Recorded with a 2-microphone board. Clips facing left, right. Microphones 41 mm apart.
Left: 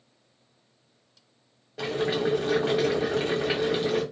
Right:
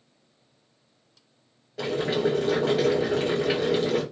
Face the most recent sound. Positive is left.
turn(degrees=5)  # may be behind; listen again after turning